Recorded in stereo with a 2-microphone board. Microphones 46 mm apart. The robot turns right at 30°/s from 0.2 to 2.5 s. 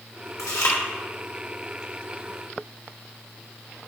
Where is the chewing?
80° left, 1.6 m; by 0.8 s 70° left (ahead or behind), 1.6 m.